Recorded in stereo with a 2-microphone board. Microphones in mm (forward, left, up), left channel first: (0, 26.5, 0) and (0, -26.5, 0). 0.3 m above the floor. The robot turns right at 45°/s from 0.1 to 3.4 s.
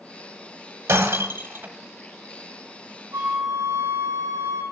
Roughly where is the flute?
Right.